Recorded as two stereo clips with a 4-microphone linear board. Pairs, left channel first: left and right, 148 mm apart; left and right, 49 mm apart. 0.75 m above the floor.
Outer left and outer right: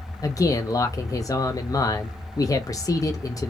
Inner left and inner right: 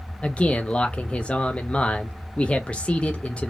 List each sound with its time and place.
0.2 s a man speaking: 25° left (ahead or behind), 0.5 m